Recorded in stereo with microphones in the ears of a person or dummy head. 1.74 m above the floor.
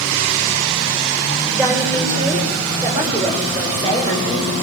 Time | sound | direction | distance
1.5 | a woman speaking | 20° right (ahead or behind) | 8.5 m